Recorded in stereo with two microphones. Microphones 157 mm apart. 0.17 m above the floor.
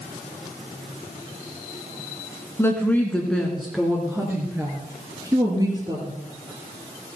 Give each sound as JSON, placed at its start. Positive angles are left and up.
{"t": 2.6, "sound": "a woman speaking", "side_deg": 15, "distance_m": 1.9}